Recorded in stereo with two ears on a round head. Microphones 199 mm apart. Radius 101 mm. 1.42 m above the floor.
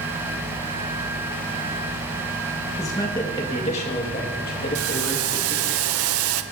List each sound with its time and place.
2.8 s a man speaking: 15° left (ahead or behind), 1.6 m; by 5.8 s 55° left (ahead or behind), 2.5 m
4.8 s boiling: 65° right (ahead or behind), 0.6 m